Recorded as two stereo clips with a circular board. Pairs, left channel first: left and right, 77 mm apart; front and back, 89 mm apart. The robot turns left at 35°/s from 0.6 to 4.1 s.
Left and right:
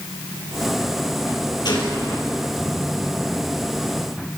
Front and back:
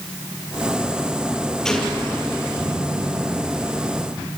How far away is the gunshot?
About 4 m.